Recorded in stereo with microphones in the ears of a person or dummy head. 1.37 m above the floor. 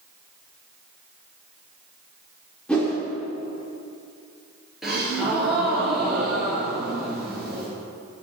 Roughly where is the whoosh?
Centre.